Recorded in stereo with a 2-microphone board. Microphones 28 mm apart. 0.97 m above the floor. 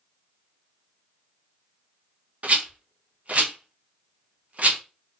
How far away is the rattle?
About 0.5 m.